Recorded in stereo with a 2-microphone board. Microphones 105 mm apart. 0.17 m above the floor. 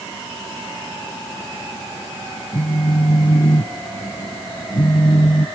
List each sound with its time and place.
2.5 s a phone buzzing: 45° left (ahead or behind)